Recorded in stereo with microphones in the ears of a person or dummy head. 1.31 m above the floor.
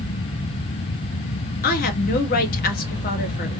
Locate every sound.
1.6 s a woman speaking: 55° left (ahead or behind), 1.0 m